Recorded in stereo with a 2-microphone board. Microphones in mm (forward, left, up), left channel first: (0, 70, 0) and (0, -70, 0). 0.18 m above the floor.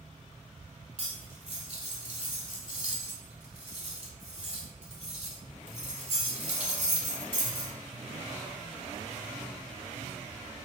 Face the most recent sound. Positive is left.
turn(degrees=-50)  # may be behind; listen again after turning